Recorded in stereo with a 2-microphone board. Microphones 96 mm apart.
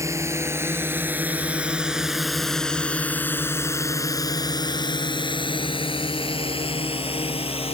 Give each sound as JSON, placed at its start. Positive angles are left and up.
{"t": 0.0, "sound": "a drone", "side_deg": -30}